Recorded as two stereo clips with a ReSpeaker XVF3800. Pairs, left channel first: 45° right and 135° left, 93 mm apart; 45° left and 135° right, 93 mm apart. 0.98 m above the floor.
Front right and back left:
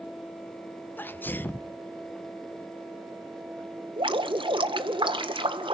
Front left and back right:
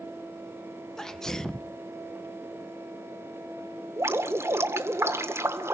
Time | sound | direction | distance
1.0 | a sneeze | 35° right | 0.8 m
4.0 | dripping | 165° left | 1.5 m